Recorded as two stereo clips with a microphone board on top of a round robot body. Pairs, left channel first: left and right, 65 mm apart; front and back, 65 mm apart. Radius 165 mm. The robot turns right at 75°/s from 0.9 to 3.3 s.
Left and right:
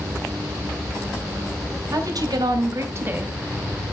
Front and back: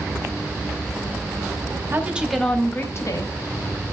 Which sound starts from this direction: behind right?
A woman speaking, at 1.9 s.